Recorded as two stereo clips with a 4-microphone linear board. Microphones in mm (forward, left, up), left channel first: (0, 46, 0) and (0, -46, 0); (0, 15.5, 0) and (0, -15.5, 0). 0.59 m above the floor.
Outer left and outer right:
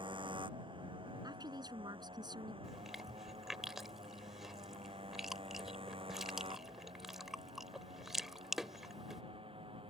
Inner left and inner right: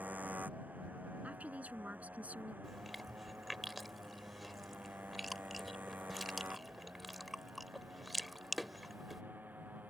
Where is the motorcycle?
65° right (ahead or behind); by 9.9 s 80° right.